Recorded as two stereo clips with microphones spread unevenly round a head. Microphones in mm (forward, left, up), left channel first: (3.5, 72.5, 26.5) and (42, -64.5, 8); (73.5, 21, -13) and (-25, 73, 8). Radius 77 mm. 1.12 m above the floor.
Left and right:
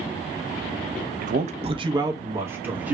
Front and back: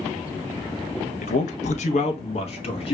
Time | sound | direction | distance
1.2 | a man speaking | 55° right | 0.7 m